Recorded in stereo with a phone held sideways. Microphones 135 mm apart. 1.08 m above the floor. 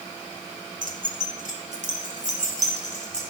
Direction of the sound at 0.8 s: 75° right (ahead or behind).